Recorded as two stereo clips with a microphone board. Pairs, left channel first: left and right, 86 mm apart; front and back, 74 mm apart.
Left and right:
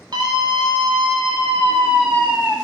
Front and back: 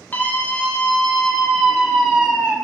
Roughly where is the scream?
Ahead right.